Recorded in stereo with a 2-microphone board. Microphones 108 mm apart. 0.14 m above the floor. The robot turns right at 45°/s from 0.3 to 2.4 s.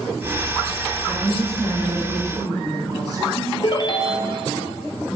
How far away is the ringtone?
About 1.2 m.